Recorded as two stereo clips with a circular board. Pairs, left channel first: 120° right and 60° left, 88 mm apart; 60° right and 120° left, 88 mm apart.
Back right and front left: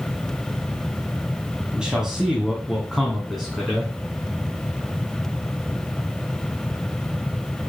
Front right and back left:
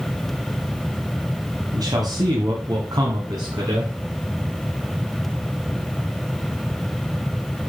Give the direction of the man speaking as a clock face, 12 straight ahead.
7 o'clock.